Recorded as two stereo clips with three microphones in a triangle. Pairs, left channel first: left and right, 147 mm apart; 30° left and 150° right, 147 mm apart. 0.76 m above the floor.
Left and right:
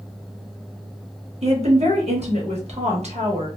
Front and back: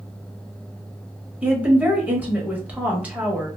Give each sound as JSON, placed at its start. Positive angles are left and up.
{"t": 1.4, "sound": "a woman speaking", "azimuth_deg": -70, "distance_m": 0.9}